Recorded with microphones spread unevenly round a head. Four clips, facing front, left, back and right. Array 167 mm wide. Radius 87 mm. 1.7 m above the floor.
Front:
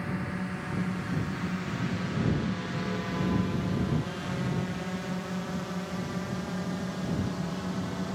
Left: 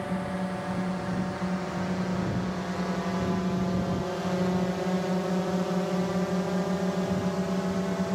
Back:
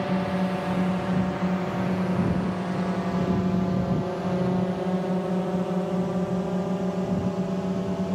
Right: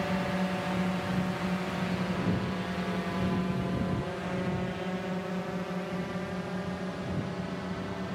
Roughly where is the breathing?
I don't hear breathing.